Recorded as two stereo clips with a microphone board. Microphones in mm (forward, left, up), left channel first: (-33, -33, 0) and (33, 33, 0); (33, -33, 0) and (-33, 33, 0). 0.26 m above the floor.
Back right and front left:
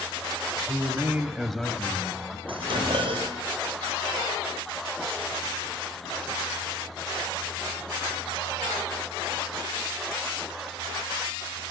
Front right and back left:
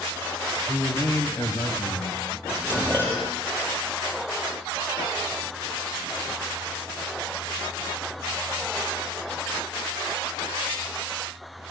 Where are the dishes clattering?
20° left, 5.5 m.